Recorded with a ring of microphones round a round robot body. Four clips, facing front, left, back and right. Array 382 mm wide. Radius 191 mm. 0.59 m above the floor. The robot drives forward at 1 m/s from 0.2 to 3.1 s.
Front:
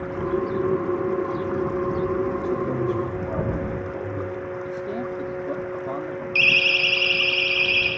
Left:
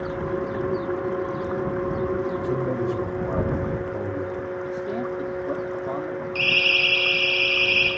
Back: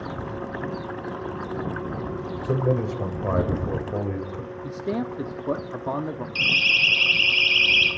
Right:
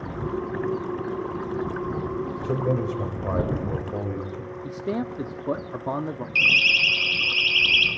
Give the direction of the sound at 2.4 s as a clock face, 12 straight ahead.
5 o'clock.